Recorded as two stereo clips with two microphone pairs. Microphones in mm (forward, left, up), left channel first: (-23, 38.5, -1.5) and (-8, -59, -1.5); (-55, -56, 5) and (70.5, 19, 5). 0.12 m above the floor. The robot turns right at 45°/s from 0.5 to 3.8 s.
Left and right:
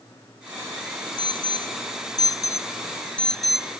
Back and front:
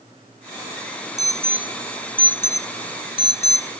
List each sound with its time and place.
1.2 s an alarm: 85° left; by 3.7 s 160° right